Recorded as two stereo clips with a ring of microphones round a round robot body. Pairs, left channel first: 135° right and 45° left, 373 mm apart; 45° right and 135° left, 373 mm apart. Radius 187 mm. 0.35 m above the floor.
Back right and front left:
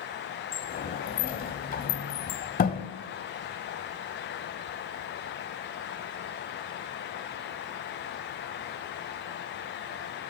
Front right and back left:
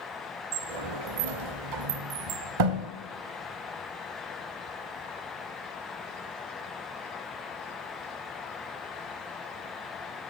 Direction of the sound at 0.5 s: 160° left.